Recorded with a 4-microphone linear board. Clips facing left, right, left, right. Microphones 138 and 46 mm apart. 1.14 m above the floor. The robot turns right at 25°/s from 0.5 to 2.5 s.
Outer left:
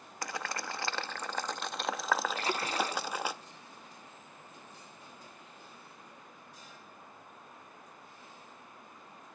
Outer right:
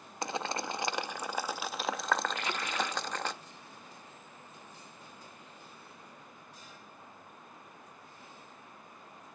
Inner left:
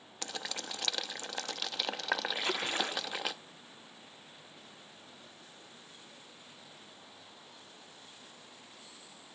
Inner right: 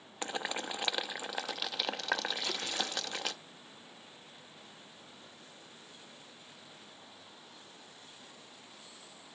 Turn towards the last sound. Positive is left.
turn(degrees=35)  # may be behind; listen again after turning